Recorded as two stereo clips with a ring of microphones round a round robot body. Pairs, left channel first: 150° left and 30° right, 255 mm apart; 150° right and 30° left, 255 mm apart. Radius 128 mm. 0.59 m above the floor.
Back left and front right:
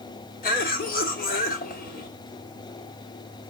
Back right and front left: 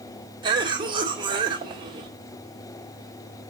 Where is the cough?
100° left, 1.8 m.